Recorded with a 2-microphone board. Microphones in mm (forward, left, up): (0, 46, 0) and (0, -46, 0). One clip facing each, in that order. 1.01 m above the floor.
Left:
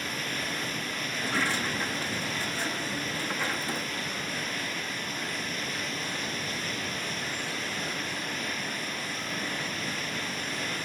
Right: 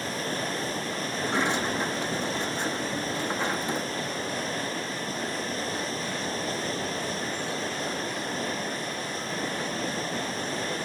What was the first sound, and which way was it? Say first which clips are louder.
Running water: right 4 dB; 30° right (ahead or behind).